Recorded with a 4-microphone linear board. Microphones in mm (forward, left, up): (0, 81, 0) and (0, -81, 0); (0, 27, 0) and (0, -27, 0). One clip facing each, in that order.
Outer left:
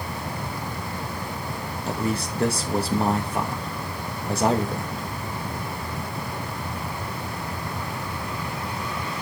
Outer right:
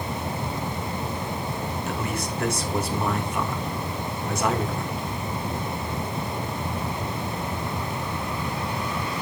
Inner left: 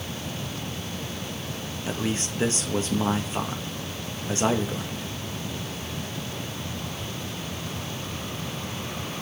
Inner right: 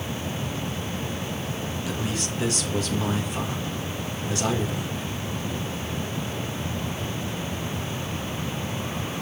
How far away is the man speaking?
About 2 m.